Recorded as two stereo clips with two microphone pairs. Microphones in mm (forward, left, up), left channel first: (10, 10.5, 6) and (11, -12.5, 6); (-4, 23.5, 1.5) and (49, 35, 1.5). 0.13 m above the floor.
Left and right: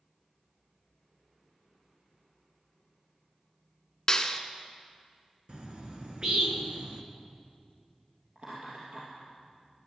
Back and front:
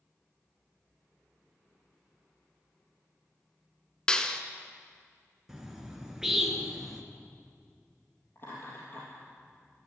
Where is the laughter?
125° right, 3.5 m.